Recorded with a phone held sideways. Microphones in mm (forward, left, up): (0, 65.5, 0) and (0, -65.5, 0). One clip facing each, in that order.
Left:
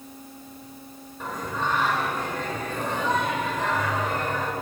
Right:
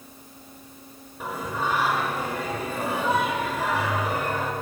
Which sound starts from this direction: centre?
Singing, at 1.2 s.